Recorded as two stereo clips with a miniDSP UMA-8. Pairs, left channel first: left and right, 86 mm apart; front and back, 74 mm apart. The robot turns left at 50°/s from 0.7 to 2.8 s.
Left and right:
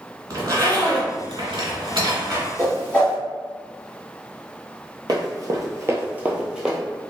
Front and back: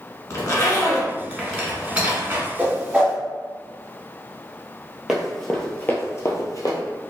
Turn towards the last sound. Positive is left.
turn(degrees=-5)